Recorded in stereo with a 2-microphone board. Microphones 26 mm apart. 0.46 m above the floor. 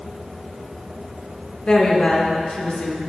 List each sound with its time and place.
1.7 s a woman speaking: 35° left (ahead or behind), 1.0 m